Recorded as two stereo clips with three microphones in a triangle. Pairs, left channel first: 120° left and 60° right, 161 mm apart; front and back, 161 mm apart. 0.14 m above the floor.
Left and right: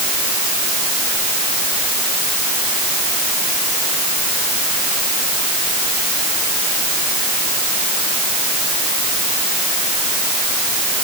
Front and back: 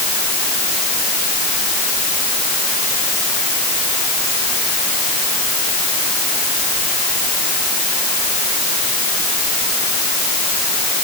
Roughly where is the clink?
No clink in this recording.